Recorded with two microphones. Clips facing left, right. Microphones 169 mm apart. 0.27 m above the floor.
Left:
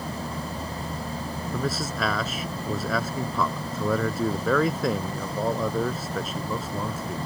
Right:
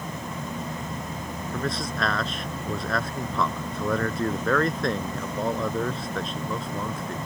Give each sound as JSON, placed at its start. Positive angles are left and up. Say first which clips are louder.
{"t": 1.5, "sound": "a man speaking", "louder": "left 1 dB", "side_deg": 5}